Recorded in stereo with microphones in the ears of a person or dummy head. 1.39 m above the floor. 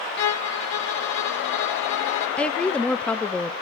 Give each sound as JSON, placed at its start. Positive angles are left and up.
{"t": 0.2, "sound": "a violin", "side_deg": 60, "distance_m": 0.7}
{"t": 2.4, "sound": "a woman speaking", "side_deg": 0, "distance_m": 0.6}